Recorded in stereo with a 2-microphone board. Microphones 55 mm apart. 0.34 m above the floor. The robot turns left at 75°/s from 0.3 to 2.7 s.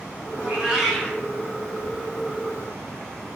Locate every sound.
0.4 s a cat meowing: 145° right, 0.8 m; by 1.2 s 155° left, 0.8 m